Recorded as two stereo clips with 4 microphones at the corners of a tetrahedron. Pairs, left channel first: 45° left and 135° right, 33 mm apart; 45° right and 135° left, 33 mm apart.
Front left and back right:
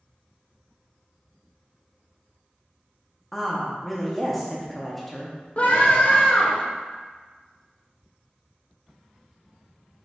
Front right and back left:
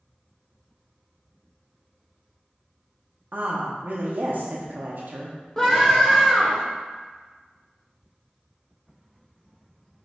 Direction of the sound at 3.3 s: 135° left.